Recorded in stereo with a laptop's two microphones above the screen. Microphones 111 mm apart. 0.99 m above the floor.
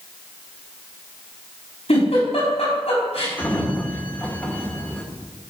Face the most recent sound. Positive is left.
turn(degrees=15)  # may be behind; listen again after turning